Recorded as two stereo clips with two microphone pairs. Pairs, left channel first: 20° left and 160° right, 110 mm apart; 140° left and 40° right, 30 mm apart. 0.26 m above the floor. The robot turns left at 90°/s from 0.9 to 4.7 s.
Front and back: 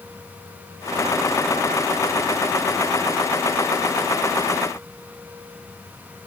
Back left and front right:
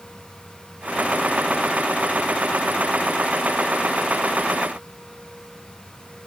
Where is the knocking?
No knocking in this recording.